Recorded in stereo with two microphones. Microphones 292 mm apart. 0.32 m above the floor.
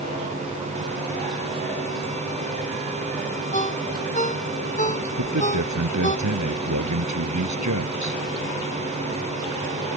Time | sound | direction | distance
3.5 | a ringtone | 25° left (ahead or behind) | ?
5.2 | a man speaking | 75° right (ahead or behind) | ?